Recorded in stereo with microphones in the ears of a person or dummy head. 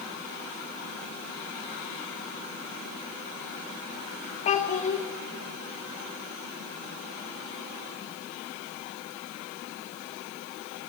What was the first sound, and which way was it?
A child speaking, 35° left (ahead or behind).